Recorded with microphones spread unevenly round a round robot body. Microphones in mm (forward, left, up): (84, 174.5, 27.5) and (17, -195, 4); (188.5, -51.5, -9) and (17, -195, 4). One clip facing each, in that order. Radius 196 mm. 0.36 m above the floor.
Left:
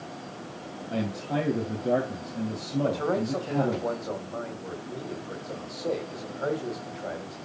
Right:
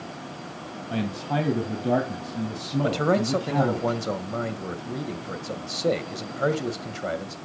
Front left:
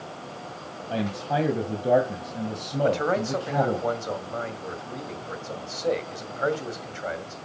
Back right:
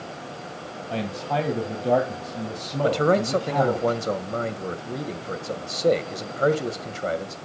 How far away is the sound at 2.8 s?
About 1.8 m.